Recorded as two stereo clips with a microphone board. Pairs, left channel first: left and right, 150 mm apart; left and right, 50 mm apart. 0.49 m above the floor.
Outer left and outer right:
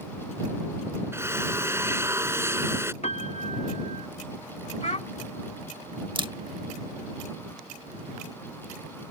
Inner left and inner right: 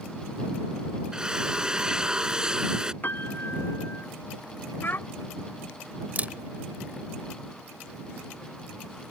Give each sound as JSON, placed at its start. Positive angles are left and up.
{"t": 1.1, "sound": "a drill", "side_deg": -15}
{"t": 3.0, "sound": "a piano", "side_deg": 50}
{"t": 4.8, "sound": "a child speaking", "side_deg": 50}
{"t": 6.2, "sound": "a camera shutter", "side_deg": -35}